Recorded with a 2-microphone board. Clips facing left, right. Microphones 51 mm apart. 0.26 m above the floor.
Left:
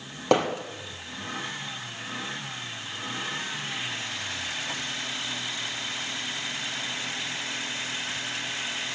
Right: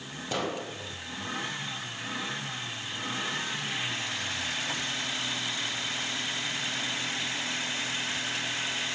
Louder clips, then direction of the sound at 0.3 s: Left 9 dB; 85° left.